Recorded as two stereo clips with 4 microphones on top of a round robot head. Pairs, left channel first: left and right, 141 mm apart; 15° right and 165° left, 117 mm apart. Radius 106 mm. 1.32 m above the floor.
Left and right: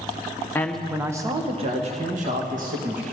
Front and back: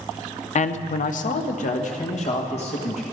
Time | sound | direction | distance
0.6 | a man speaking | 15° left | 0.9 m